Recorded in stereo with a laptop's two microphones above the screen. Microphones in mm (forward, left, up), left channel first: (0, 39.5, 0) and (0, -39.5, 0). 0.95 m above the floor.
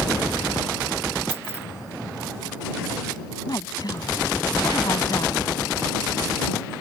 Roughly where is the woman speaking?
Left.